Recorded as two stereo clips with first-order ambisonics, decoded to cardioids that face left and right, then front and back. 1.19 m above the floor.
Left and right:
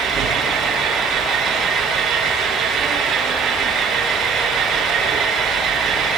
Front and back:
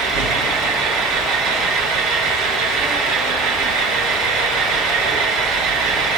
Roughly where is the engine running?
Behind right.